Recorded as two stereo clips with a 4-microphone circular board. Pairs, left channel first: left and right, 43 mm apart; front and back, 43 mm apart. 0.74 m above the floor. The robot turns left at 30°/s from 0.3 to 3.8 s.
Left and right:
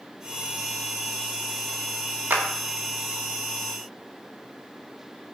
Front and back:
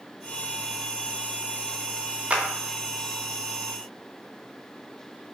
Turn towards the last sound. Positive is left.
turn(degrees=-165)